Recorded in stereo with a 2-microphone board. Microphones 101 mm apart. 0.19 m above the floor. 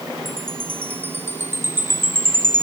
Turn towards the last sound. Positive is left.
turn(degrees=-20)  # may be behind; listen again after turning